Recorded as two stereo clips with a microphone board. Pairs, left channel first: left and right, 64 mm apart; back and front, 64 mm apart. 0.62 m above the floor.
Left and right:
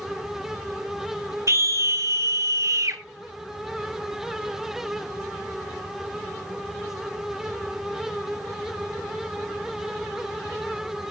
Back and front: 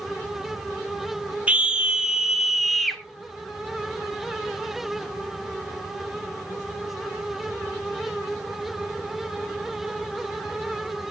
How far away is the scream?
About 2.5 m.